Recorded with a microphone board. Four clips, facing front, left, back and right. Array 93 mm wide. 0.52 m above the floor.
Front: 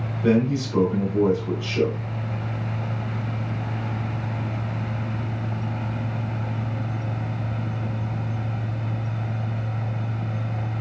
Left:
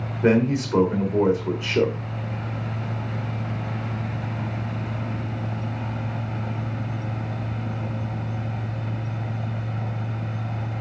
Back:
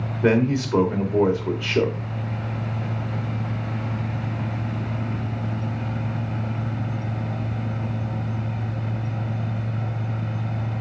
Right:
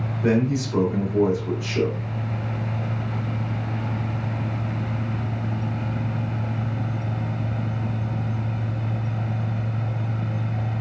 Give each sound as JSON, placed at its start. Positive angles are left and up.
{"t": 0.2, "sound": "a man speaking", "azimuth_deg": 145, "distance_m": 2.0}